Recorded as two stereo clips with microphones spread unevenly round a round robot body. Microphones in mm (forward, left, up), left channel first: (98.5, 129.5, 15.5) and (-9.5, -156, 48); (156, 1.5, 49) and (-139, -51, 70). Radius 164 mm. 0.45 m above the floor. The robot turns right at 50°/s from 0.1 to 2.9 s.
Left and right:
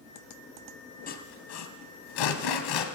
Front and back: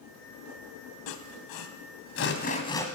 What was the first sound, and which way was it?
Sawing, 5° left.